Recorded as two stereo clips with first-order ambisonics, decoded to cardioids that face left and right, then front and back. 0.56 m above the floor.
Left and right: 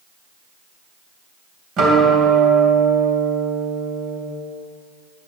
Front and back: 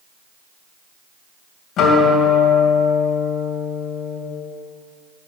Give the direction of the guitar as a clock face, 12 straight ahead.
2 o'clock.